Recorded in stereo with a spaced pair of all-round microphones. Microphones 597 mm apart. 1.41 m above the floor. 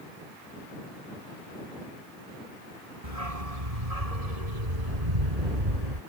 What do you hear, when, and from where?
3.0 s a dog barking: 65° right (ahead or behind); by 6.0 s 85° right